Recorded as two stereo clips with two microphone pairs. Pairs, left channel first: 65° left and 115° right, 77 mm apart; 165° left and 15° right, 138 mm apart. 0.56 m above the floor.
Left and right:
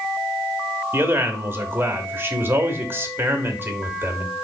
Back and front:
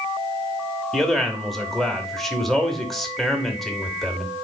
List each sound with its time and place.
0.9 s a man speaking: 110° right, 0.9 m